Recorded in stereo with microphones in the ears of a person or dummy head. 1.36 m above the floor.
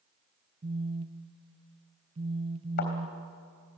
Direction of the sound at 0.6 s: 30° right (ahead or behind).